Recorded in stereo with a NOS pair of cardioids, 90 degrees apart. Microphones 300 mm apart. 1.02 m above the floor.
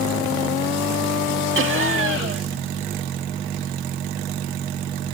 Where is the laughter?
45° right.